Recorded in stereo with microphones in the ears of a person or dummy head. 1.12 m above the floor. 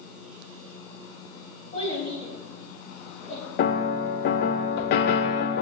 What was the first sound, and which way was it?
A child speaking, 35° left (ahead or behind).